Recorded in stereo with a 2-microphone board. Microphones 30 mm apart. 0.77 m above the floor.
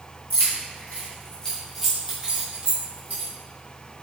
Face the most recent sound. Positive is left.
turn(degrees=-50)  # may be behind; listen again after turning